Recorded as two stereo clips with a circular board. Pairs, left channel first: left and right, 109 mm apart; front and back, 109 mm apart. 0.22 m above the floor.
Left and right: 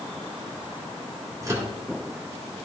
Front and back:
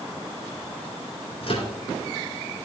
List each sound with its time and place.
1.4 s a microwave: 30° right, 2 m